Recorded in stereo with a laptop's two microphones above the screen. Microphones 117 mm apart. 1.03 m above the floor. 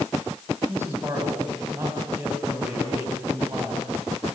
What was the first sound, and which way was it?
A man speaking, 20° right (ahead or behind).